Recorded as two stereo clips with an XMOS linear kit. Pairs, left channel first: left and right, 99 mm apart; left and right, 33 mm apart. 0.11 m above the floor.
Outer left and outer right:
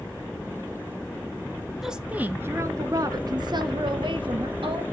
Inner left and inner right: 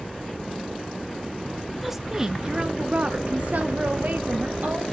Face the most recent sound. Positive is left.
turn(degrees=-60)  # may be behind; listen again after turning